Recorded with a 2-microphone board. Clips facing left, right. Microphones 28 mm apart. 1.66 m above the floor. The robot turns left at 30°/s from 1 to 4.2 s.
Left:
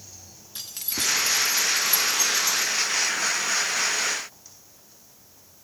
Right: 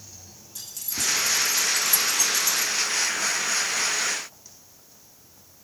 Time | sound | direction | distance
0.6 | keys jangling | 55° left (ahead or behind) | 1.7 m